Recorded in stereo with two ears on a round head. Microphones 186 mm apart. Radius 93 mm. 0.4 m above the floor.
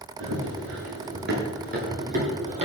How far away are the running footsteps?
About 6.5 m.